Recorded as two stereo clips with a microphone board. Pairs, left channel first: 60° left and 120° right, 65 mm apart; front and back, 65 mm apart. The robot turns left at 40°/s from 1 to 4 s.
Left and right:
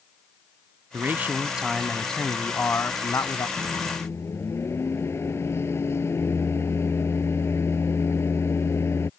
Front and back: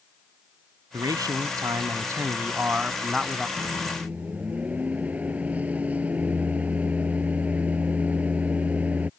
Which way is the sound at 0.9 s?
175° right.